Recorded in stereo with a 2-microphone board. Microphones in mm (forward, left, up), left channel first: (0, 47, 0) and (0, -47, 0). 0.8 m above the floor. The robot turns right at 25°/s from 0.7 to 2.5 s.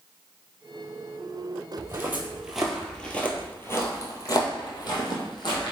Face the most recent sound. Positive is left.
turn(degrees=60)  # may be behind; listen again after turning